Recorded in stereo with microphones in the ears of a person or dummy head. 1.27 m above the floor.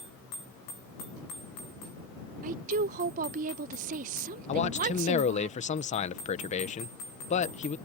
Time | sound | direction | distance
2.4 | a woman speaking | 45° right (ahead or behind) | ?
4.5 | a man speaking | 35° left (ahead or behind) | ?